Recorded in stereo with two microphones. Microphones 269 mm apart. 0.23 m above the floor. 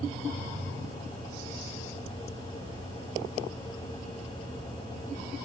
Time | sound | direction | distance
2.6 | keys jangling | 50° left (ahead or behind) | 5.5 m